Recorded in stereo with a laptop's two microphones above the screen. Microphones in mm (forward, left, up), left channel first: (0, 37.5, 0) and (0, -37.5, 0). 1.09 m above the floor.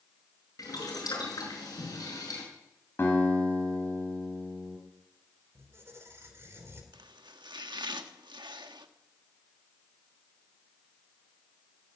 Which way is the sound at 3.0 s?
30° left (ahead or behind).